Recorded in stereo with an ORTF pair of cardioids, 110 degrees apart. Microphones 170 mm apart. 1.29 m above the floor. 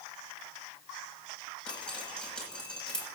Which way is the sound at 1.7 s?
5° left.